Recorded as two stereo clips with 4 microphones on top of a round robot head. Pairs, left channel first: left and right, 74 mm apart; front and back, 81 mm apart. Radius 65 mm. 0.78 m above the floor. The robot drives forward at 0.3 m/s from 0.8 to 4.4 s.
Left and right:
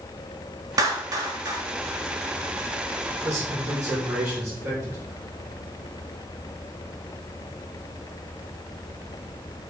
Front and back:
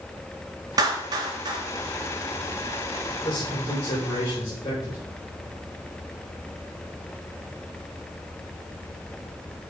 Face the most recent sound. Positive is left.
turn(degrees=-50)